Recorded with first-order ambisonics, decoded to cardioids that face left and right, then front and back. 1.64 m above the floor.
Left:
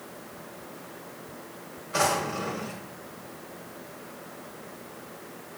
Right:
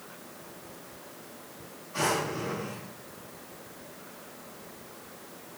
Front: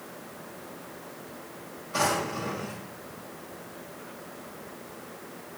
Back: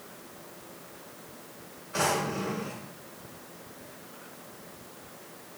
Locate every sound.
1.9 s a drawer: 75° left, 2.5 m